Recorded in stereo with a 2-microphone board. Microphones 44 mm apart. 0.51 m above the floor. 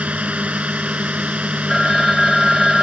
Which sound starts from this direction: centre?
A phone ringing, at 1.7 s.